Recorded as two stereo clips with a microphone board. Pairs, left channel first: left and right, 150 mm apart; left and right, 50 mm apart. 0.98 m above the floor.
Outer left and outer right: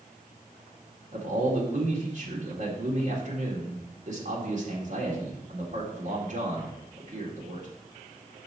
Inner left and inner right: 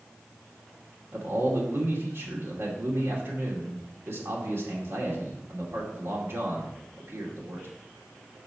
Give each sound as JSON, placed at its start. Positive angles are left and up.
{"t": 1.1, "sound": "a man speaking", "side_deg": -55, "distance_m": 2.0}